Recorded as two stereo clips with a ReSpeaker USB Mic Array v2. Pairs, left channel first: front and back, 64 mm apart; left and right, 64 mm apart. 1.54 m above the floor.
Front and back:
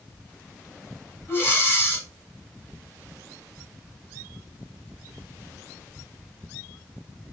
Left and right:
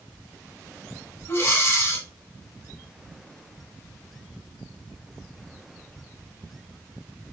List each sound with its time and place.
1.3 s breathing: 50° left, 2.5 m